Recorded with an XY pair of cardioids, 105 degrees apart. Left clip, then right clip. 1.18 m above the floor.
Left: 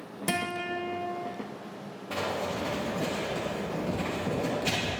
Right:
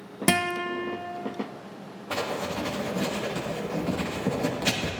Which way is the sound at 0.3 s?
50° right.